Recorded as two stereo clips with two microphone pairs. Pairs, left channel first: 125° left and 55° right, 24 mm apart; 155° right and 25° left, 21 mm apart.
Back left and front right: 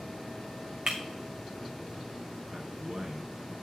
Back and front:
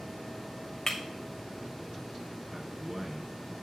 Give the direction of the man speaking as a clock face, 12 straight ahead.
1 o'clock.